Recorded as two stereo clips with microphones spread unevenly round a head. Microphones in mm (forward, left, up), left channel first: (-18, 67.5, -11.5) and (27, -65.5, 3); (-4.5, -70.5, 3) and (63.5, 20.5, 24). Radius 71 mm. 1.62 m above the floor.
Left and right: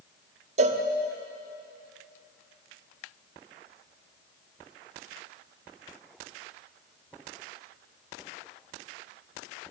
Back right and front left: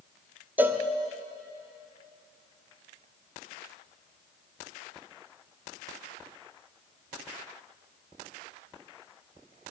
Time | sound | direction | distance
0.6 | a cowbell | 25° right | 0.7 m